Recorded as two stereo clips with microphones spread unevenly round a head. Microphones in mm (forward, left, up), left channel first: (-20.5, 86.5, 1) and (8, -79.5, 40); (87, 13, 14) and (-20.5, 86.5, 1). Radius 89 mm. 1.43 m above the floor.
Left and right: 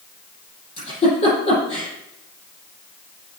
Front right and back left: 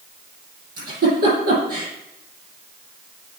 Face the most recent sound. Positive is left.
turn(degrees=160)